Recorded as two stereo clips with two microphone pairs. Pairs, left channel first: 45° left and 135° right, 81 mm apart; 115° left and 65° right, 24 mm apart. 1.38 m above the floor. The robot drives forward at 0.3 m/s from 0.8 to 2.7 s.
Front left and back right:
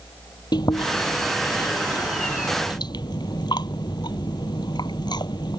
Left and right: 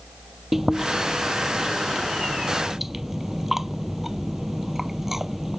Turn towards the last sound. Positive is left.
turn(degrees=15)